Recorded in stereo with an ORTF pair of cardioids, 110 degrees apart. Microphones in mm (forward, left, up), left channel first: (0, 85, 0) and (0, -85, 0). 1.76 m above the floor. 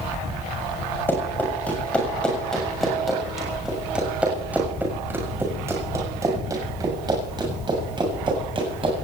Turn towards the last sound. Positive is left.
turn(degrees=-35)